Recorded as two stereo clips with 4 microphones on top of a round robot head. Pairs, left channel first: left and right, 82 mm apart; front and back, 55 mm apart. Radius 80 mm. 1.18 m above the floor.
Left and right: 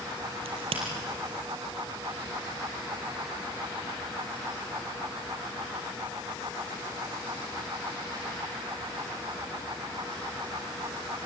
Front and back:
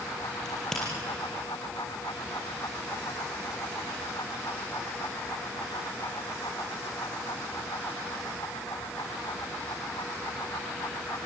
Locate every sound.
0.5 s a crack: 85° right, 5.5 m